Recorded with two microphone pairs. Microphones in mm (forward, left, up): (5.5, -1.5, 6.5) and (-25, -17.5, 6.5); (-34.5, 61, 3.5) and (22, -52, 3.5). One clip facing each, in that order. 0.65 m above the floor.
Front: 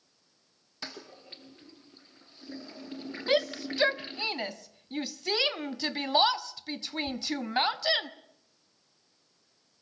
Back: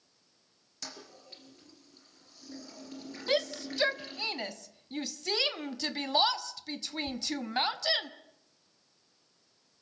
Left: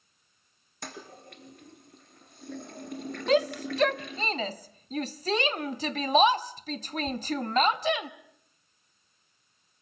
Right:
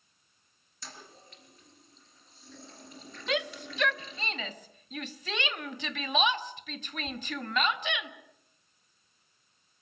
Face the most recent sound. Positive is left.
turn(degrees=100)